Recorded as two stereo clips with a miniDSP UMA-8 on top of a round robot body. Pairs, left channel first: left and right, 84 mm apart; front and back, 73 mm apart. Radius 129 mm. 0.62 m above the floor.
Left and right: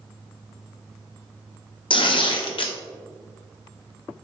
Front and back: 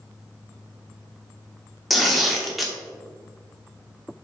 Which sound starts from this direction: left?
Tearing paper, at 1.9 s.